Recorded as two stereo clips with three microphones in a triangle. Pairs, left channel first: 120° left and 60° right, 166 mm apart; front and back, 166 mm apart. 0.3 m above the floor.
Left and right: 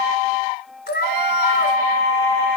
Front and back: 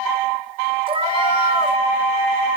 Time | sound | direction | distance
0.9 | a cat meowing | 125° left | 1.0 m